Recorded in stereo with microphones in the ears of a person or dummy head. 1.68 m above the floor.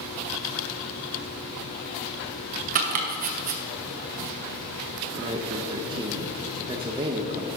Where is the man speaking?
25° right (ahead or behind), 0.7 m.